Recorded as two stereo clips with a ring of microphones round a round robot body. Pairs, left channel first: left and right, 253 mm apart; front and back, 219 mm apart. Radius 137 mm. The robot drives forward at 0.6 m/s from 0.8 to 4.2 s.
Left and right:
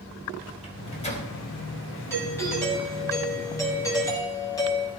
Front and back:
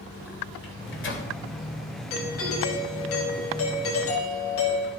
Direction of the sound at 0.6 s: 25° left.